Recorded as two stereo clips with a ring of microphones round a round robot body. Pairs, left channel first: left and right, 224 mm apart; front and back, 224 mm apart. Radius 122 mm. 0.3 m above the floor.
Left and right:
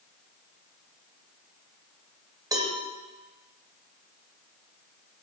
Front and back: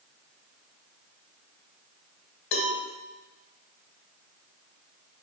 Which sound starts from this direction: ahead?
A cowbell, at 2.5 s.